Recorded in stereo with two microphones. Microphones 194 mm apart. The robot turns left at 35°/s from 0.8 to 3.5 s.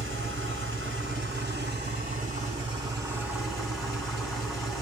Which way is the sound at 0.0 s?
90° right.